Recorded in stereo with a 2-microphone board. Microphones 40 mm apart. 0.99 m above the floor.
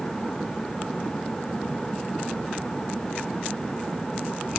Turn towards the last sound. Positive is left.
No sound to turn to.